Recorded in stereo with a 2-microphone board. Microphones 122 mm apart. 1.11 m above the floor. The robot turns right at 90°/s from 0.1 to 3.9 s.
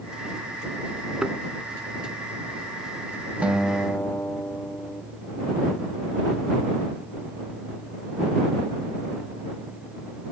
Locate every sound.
1.2 s a thud: 10° right (ahead or behind); by 1.4 s 5° left (ahead or behind)
3.4 s a guitar: 15° right; by 5.0 s 25° left